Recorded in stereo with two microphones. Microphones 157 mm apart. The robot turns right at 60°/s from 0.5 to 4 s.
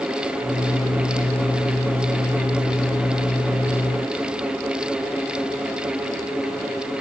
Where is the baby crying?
No baby crying in this recording.